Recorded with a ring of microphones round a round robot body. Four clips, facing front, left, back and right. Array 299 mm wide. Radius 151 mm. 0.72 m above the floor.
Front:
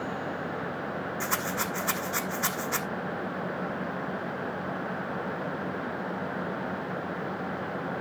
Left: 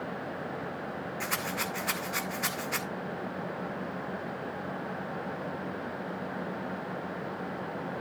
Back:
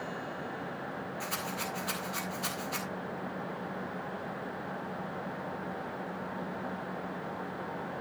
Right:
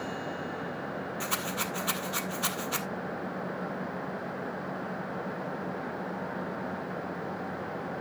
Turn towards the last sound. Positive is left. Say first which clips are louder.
# left 1 dB, front 7 dB
turn(degrees=-20)